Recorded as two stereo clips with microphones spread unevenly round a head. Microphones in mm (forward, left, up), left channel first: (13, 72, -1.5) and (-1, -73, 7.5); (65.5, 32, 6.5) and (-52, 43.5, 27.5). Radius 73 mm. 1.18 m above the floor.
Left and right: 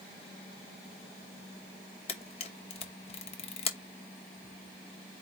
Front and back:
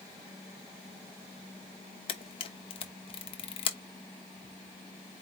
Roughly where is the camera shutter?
Ahead left.